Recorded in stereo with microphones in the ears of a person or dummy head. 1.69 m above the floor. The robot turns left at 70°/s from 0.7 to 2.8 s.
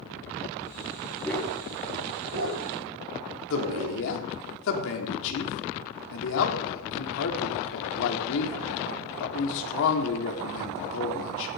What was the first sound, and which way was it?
A dog barking, 5° left (ahead or behind).